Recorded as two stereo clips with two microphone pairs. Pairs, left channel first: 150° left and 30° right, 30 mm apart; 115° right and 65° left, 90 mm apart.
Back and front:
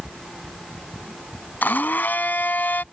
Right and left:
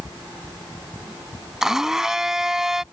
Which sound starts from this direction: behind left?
A blender, at 1.6 s.